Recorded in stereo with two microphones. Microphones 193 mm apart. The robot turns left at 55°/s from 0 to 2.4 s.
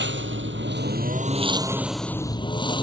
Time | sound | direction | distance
0.0 | a lawn mower | 70° right | ?